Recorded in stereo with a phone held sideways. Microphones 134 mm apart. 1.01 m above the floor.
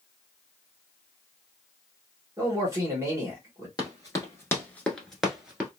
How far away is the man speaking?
About 1.1 m.